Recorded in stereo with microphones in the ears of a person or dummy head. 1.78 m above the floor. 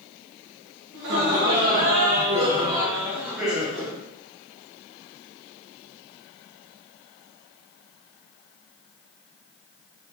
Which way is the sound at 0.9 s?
65° right (ahead or behind).